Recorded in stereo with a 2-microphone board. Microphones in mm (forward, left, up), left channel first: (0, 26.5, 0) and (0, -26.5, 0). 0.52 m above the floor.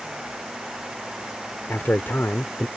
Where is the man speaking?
45° left (ahead or behind).